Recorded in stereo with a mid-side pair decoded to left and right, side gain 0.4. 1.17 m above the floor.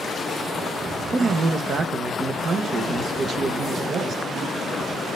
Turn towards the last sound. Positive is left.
turn(degrees=-50)